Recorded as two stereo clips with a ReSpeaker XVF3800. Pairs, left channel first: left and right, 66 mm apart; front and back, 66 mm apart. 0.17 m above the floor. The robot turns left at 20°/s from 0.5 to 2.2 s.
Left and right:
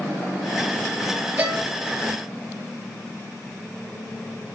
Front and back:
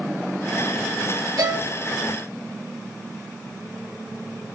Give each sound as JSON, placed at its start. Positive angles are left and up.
{"t": 1.4, "sound": "a violin", "azimuth_deg": -145, "distance_m": 0.7}